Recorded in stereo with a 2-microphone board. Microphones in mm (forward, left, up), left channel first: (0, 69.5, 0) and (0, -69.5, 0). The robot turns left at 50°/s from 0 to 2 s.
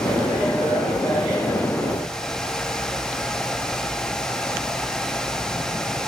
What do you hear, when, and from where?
Only background noise.